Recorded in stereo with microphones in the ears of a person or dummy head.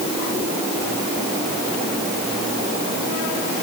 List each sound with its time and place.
Only background noise.